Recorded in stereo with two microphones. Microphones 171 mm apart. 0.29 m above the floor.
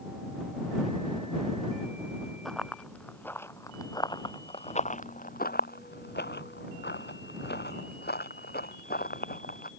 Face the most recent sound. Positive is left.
turn(degrees=60)  # may be behind; listen again after turning